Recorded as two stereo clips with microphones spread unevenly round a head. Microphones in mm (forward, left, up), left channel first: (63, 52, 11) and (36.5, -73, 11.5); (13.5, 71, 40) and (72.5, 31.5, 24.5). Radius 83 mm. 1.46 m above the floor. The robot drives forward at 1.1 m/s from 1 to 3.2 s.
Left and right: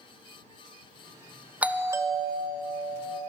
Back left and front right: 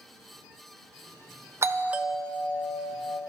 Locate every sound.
1.6 s a doorbell: 25° right, 0.7 m; by 3.2 s 170° right, 1.3 m